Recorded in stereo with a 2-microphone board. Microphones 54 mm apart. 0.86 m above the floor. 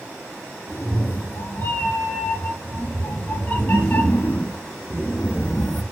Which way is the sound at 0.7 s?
40° left (ahead or behind).